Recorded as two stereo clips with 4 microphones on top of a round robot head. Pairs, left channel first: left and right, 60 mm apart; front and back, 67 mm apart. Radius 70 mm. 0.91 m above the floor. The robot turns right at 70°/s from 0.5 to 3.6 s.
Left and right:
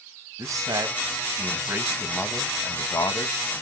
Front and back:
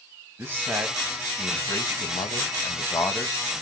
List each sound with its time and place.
0.4 s a man speaking: 115° right, 0.8 m; by 3.4 s 85° left, 0.8 m